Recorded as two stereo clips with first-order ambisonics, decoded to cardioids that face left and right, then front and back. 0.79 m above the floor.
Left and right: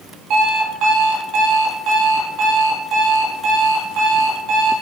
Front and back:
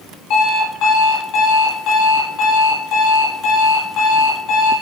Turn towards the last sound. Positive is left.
turn(degrees=-40)